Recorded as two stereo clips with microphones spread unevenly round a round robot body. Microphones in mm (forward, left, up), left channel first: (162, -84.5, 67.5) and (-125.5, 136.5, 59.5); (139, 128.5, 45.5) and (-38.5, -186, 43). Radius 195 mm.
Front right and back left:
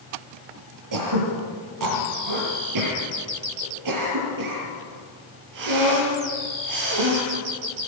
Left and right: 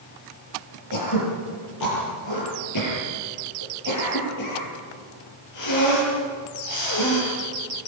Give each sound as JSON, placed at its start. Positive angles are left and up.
{"t": 0.9, "sound": "throat clearing", "azimuth_deg": 105, "distance_m": 6.5}